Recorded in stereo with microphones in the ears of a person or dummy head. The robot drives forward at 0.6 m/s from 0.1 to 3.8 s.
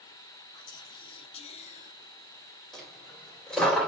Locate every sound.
0.5 s whispering: 25° left (ahead or behind), 1.6 m; by 1.9 s 45° left (ahead or behind), 0.9 m
2.7 s a dropped coin: 5° left (ahead or behind), 2.5 m